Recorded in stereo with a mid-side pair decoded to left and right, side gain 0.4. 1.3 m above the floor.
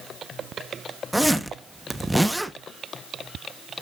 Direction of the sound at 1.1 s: 5° right.